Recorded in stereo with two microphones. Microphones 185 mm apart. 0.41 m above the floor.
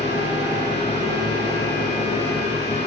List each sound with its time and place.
0.0 s an engine running: 30° left (ahead or behind), 6 m